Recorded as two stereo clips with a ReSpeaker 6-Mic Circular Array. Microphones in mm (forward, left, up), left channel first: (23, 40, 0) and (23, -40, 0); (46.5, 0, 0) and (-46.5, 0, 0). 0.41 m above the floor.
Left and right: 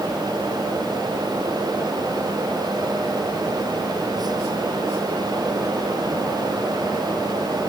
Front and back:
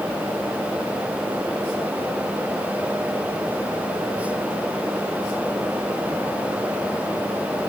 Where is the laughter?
No laughter in this recording.